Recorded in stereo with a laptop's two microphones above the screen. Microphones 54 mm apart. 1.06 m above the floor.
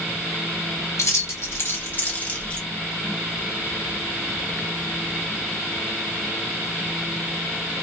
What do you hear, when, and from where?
1.0 s keys jangling: 70° left (ahead or behind), 1.1 m; by 2.6 s 20° left (ahead or behind), 1.2 m